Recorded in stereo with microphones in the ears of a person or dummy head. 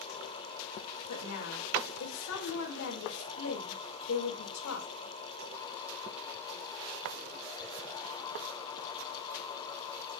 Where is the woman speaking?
90° left, 2 m.